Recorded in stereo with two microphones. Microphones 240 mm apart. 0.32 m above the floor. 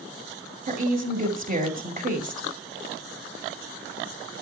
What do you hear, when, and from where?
0.7 s a woman speaking: 35° right (ahead or behind), 2.0 m